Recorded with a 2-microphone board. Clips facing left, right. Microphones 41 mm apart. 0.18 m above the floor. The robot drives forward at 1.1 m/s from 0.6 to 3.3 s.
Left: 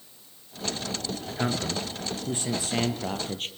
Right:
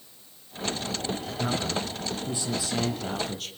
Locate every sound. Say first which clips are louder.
1.4 s a man speaking: left 1 dB; 55° left (ahead or behind), 3 m; by 3.5 s 35° left (ahead or behind), 4.5 m